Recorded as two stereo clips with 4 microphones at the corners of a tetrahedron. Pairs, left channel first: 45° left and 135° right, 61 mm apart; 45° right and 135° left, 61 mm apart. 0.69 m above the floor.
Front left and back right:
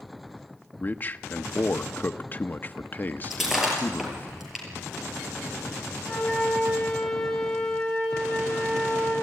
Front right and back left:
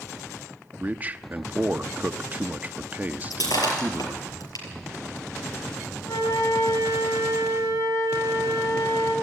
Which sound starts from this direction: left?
A man speaking, at 0.8 s.